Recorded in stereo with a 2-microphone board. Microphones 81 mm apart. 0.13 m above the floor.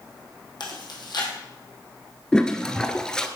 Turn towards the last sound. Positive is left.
turn(degrees=10)  # may be behind; listen again after turning